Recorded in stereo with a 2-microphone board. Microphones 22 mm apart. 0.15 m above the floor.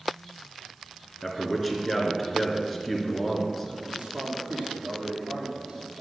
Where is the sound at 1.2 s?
5° left (ahead or behind), 2 m.